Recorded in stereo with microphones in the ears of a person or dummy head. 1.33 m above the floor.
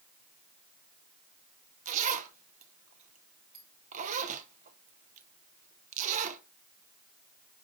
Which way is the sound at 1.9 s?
40° right (ahead or behind).